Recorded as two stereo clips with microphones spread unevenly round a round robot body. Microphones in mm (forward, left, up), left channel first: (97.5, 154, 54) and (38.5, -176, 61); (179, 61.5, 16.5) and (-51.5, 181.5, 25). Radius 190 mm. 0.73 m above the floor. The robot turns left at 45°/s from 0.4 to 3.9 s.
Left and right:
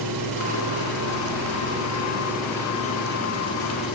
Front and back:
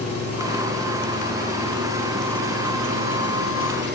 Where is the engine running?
100° right, 3 m; by 4.0 s 105° left, 3 m.